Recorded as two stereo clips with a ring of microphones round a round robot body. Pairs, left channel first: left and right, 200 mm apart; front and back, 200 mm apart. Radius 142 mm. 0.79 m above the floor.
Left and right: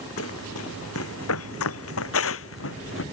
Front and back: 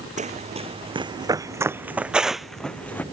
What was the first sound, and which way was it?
Running footsteps, 125° left.